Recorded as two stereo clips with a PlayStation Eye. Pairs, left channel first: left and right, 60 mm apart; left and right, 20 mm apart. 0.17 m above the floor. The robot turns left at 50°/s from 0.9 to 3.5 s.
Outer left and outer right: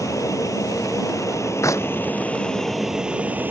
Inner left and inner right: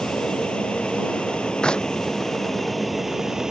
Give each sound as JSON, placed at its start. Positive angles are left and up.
{"t": 0.0, "sound": "an aircraft", "azimuth_deg": 95}
{"t": 1.6, "sound": "a clap", "side_deg": 60}